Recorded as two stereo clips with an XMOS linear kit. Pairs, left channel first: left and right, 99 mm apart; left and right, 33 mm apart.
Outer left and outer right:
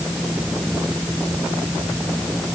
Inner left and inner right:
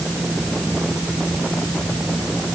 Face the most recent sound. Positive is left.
No sound to turn to.